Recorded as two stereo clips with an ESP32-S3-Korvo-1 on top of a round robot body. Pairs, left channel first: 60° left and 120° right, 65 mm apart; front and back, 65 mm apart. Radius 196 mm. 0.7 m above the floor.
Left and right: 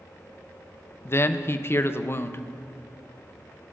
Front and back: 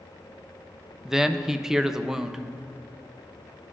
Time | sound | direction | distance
1.1 | a man speaking | 100° left | 0.6 m